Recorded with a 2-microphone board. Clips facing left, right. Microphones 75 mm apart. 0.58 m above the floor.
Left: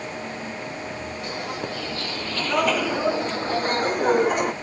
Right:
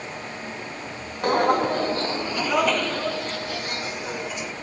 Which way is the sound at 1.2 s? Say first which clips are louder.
Right 14 dB; 60° right (ahead or behind).